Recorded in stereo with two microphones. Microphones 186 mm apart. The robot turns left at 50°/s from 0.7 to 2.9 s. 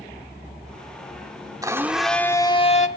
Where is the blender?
160° right, 1.5 m; by 2.9 s 135° left, 1.5 m.